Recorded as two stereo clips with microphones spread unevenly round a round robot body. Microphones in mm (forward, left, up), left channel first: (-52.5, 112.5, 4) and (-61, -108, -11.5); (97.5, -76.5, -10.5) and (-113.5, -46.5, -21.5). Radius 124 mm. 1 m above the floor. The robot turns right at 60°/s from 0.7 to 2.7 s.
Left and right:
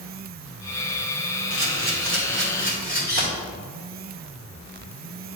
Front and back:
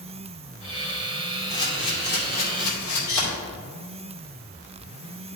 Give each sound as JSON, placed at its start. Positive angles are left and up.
{"t": 1.5, "sound": "a camera shutter", "azimuth_deg": -85, "distance_m": 2.5}